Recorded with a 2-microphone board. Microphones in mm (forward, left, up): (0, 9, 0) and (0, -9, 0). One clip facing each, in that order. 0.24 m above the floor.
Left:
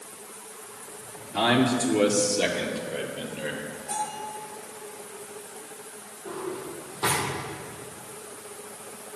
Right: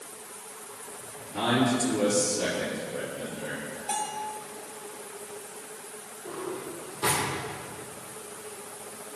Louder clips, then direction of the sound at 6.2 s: Left 2 dB; 15° left (ahead or behind).